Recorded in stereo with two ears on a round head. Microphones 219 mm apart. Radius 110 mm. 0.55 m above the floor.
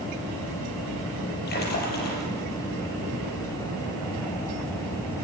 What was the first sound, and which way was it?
A splash, 40° left (ahead or behind).